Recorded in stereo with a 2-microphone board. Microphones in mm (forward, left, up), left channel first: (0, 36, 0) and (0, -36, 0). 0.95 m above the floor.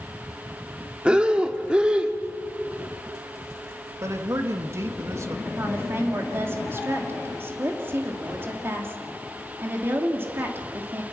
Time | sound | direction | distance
1.1 | breathing | 15° right (ahead or behind) | 1.0 m
4.0 | a man speaking | 40° right (ahead or behind) | 1.5 m
5.5 | a woman speaking | 35° right (ahead or behind) | 2 m